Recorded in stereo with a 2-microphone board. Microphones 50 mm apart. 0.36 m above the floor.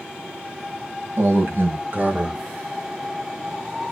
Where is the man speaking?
60° right (ahead or behind), 2.5 m; by 2.4 s 20° right (ahead or behind), 1.2 m.